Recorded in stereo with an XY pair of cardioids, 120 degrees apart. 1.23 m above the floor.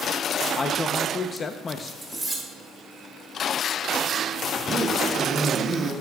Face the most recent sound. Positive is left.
turn(degrees=-40)